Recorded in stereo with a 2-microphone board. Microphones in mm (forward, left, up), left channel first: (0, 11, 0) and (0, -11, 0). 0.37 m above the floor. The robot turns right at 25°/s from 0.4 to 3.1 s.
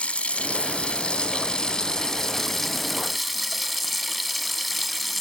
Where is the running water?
115° left, 1.7 m; by 5.2 s straight behind, 1.7 m.